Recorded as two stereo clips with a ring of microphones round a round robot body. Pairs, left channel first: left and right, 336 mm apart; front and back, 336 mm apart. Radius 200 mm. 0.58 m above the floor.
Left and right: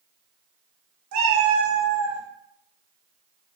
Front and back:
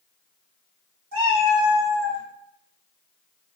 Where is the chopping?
No chopping in this recording.